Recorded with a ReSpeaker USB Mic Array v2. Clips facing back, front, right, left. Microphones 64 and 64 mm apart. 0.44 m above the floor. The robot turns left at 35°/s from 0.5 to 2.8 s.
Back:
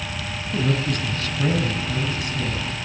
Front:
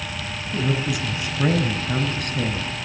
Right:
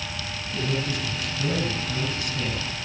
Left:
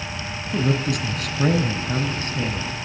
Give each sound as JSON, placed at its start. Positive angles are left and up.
{"t": 0.5, "sound": "a man speaking", "azimuth_deg": 95, "distance_m": 3.0}